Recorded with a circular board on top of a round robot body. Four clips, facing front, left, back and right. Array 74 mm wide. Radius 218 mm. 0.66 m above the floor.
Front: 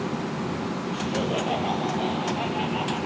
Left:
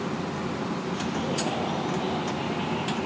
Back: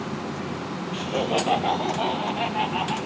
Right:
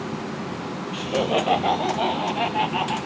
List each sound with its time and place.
0.9 s laughter: 110° right, 3 m